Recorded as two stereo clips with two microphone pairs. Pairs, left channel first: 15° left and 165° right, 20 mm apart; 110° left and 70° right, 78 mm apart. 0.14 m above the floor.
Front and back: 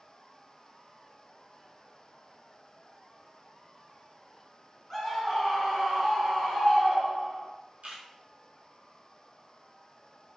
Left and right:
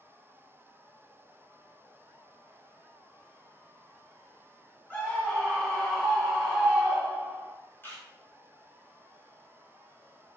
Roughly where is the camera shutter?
Behind.